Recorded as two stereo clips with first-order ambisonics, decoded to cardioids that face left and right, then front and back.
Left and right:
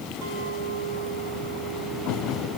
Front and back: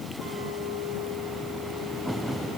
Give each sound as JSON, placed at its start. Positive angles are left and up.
{"t": 0.2, "sound": "a clink", "azimuth_deg": -90, "distance_m": 8.5}